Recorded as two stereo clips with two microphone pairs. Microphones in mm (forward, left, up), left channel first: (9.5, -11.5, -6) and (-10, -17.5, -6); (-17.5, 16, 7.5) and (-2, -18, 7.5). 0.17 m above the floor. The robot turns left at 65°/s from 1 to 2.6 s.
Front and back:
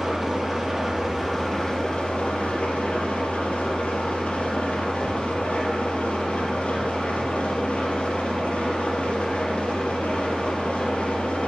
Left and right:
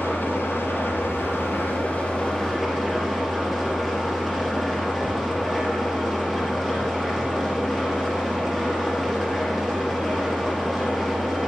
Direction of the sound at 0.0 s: 130° left.